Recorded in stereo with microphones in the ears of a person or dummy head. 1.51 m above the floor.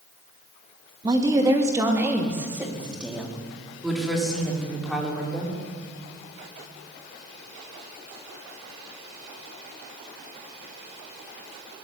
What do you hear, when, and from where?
1.0 s a woman speaking: 20° right (ahead or behind), 2.5 m; by 5.6 s 5° left (ahead or behind), 6 m